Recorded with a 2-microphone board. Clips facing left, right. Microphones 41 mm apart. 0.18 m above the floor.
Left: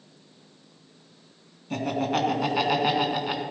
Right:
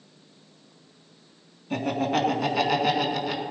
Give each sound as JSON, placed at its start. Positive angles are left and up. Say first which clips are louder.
{"t": 1.7, "sound": "laughter", "louder": "right 1 dB", "side_deg": -5, "distance_m": 1.9}